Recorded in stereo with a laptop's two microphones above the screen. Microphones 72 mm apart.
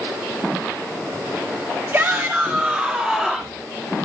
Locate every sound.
1.9 s a shout: 35° right (ahead or behind), 1.5 m; by 3.6 s centre (ahead or behind), 1.7 m